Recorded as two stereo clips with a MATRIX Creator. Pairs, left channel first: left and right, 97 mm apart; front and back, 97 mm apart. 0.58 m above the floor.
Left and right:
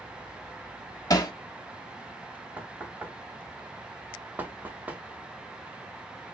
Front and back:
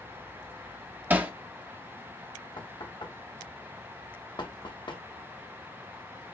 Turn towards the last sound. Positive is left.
turn(degrees=-20)